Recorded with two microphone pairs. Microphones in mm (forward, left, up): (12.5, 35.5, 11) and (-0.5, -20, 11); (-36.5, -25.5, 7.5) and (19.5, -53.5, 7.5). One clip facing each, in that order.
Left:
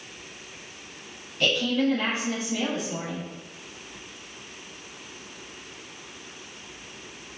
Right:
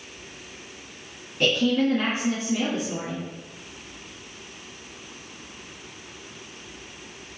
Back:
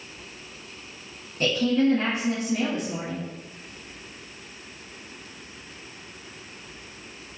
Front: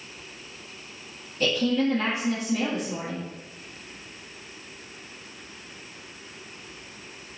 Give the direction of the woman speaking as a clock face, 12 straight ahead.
6 o'clock.